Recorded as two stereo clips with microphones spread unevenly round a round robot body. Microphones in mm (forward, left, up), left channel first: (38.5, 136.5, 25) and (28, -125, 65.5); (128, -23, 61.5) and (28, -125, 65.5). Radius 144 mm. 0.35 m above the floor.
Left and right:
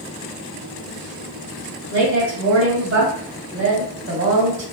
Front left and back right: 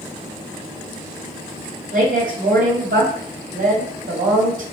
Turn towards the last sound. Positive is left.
turn(degrees=-140)